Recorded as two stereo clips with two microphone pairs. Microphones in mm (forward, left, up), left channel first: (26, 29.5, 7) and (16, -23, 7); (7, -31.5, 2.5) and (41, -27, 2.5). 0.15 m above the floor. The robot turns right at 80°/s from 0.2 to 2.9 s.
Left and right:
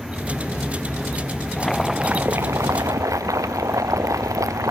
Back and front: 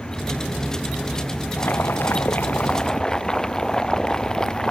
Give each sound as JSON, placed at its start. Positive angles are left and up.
{"t": 1.6, "sound": "boiling", "azimuth_deg": 150}